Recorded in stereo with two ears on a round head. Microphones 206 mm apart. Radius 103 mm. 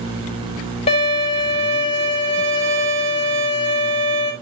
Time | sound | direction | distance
0.9 | a violin | 30° left (ahead or behind) | 2.5 m